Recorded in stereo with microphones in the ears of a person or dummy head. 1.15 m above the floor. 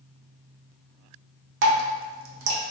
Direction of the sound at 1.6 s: 65° right (ahead or behind).